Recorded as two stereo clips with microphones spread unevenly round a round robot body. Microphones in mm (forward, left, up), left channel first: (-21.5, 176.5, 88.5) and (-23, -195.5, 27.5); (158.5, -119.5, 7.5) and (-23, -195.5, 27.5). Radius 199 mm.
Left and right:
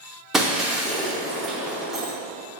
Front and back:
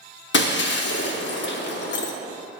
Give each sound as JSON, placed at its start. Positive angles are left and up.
{"t": 0.3, "sound": "breaking glass", "azimuth_deg": 5, "distance_m": 0.5}